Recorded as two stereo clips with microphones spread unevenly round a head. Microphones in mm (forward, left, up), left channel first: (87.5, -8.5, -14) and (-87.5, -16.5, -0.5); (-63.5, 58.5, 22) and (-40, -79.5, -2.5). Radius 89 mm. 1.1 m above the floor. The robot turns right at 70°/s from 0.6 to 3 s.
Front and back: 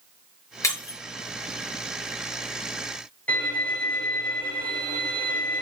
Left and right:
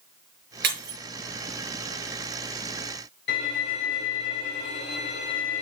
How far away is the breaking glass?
About 5 m.